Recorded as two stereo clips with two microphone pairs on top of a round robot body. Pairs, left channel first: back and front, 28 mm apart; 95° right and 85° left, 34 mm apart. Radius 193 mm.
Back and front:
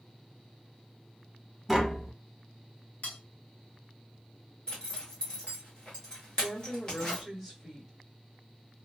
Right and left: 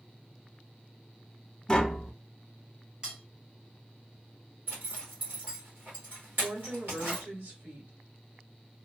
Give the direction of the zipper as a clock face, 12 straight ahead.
8 o'clock.